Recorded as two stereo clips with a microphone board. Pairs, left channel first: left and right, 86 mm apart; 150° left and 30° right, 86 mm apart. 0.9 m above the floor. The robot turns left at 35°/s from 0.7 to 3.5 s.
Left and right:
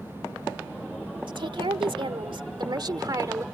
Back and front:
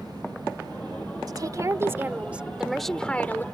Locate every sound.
1.3 s a woman speaking: 70° right; by 3.5 s 145° right